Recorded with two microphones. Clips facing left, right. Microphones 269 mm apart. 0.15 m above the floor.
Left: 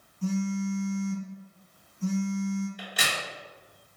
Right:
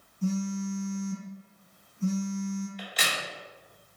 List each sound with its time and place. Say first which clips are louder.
0.2 s a phone buzzing: left 1 dB; centre (ahead or behind), 1.4 m
2.8 s a crack: even; 55° left (ahead or behind), 1.6 m